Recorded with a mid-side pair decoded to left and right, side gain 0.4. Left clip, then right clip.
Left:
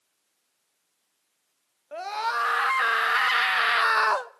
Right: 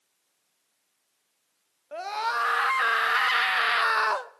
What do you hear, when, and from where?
1.9 s a scream: 5° left, 1.8 m; by 4.3 s 35° left, 0.5 m